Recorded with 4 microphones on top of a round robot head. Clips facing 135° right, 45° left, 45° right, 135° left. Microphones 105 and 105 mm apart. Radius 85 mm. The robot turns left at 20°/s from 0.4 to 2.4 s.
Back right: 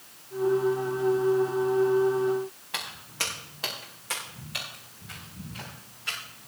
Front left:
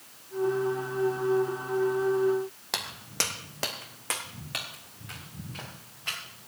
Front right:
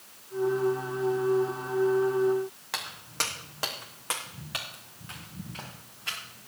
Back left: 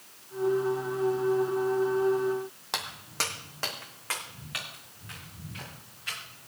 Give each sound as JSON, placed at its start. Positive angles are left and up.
{"t": 2.7, "sound": "footsteps", "azimuth_deg": 65, "distance_m": 1.6}